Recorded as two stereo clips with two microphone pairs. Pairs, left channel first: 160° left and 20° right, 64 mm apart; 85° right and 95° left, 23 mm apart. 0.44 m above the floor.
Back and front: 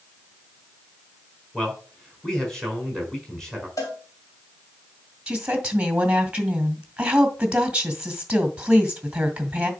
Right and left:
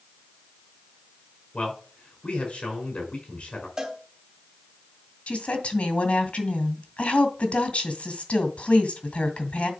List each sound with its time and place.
1.5 s a man speaking: 115° right, 4.5 m
3.8 s a cowbell: 155° left, 3 m
5.3 s a woman speaking: 90° right, 2 m